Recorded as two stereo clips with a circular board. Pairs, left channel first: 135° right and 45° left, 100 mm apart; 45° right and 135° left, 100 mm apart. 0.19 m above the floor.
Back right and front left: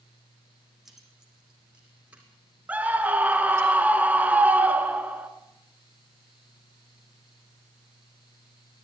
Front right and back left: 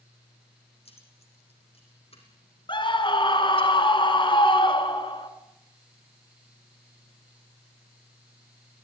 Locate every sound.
0.8 s keys jangling: 45° right, 5.5 m; by 3.7 s 20° right, 6 m
2.7 s a scream: 25° right, 3 m